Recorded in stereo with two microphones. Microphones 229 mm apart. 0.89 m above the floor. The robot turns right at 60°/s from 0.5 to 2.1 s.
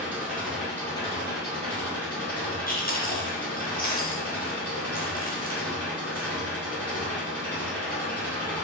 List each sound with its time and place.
0.0 s an engine running: 5° right, 2 m; by 8.7 s 90° left, 2 m
2.7 s chewing: 40° left (ahead or behind), 1.0 m